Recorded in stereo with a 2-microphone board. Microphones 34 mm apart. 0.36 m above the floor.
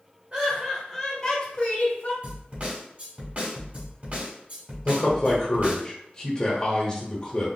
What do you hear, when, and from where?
0.3 s laughter: 30° right (ahead or behind), 1.2 m; by 2.1 s 45° left (ahead or behind), 1.8 m
2.2 s a snare drum: 45° right (ahead or behind), 1.2 m
4.8 s a man speaking: 25° left (ahead or behind), 1.0 m